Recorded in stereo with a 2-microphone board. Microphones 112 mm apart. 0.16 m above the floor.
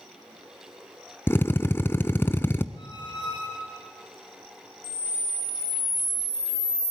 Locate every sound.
1.3 s a drill: 20° left (ahead or behind), 0.7 m
2.8 s a squeak: 50° left (ahead or behind), 6.5 m
4.8 s a camera shutter: 40° left (ahead or behind), 1.6 m